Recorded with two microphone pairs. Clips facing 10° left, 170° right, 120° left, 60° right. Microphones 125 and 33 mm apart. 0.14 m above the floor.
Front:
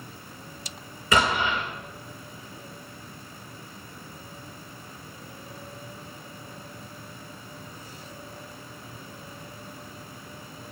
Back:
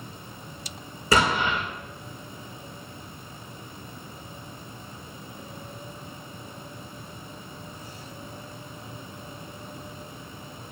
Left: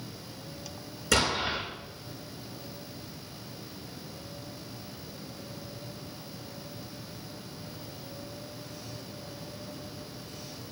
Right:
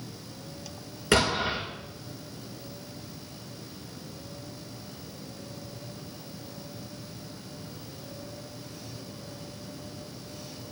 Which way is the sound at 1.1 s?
115° right.